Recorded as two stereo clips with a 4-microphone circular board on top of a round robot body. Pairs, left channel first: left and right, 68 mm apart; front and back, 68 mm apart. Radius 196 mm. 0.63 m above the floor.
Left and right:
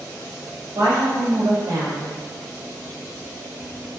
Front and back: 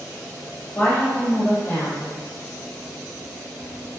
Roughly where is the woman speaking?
Right.